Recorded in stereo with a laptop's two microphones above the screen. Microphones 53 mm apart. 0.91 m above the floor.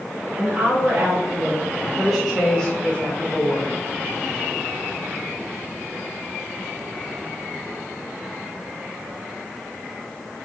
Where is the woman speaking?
45° right (ahead or behind), 1.2 m; by 3.7 s 45° left (ahead or behind), 1.1 m.